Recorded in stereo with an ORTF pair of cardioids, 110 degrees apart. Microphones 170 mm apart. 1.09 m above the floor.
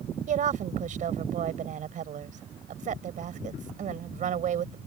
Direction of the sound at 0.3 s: 55° right.